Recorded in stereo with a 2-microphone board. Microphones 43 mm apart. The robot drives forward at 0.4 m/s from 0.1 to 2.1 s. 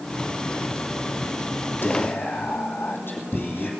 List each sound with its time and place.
1.8 s whispering: 50° left (ahead or behind), 3 m